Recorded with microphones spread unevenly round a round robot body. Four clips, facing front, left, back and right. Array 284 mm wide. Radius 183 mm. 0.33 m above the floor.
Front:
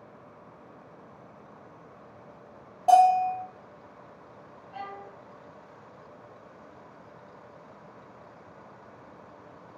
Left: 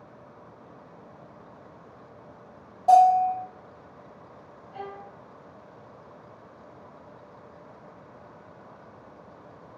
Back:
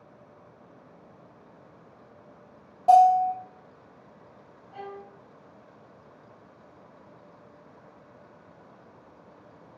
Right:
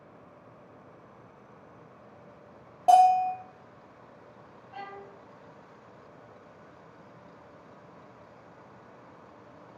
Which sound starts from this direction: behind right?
A bell, at 2.9 s.